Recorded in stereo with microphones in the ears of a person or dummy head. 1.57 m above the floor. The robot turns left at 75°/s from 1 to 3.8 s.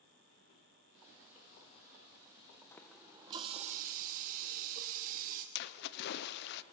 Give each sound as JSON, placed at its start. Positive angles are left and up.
{"t": 2.7, "sound": "a running tap", "azimuth_deg": 20, "distance_m": 0.7}
{"t": 5.5, "sound": "a splash", "side_deg": 60, "distance_m": 0.6}